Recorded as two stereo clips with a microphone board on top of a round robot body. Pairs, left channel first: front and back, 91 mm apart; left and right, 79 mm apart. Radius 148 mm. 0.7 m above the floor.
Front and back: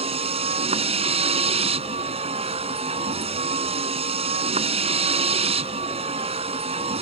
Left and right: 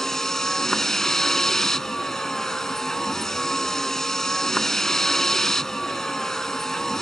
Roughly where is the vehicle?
Behind.